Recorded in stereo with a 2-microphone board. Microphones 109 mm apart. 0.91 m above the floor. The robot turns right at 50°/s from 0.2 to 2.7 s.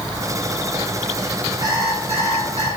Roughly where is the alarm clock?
Behind right.